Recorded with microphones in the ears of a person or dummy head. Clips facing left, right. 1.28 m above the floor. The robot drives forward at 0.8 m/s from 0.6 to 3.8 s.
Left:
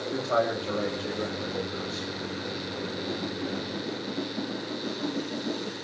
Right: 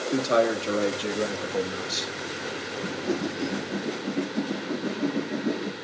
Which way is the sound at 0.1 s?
35° right (ahead or behind).